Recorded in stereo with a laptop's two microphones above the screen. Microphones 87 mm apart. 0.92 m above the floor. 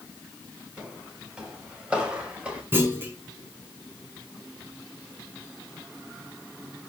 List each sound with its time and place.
0.8 s footsteps: 10° right (ahead or behind), 9.5 m; by 2.6 s 15° right (ahead or behind), 10 m
2.7 s a clunk: 25° right (ahead or behind), 6.5 m